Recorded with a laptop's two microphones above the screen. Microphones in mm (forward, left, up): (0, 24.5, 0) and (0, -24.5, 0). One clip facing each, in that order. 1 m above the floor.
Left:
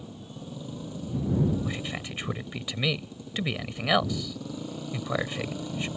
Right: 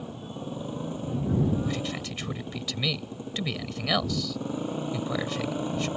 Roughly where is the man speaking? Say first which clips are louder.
Right 2 dB; centre.